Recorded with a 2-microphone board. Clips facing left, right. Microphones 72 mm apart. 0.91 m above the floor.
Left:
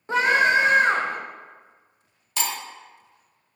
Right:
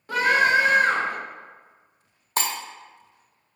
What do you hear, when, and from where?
0.1 s a scream: 25° left (ahead or behind), 0.6 m
2.4 s breaking glass: 40° right (ahead or behind), 0.5 m